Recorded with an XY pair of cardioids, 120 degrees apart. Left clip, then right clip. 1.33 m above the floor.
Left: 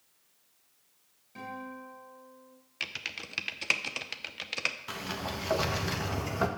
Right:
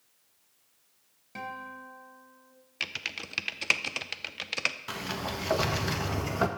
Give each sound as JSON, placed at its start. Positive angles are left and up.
{"t": 1.4, "sound": "a guitar", "azimuth_deg": -55, "distance_m": 3.0}
{"t": 2.8, "sound": "typing on a keyboard", "azimuth_deg": -15, "distance_m": 0.6}
{"t": 4.9, "sound": "a sliding door", "azimuth_deg": -15, "distance_m": 1.0}